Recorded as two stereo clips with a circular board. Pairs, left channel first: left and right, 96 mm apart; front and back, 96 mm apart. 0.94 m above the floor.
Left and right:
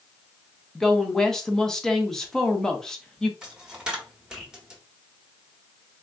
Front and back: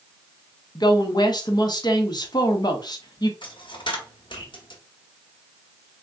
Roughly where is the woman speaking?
Ahead.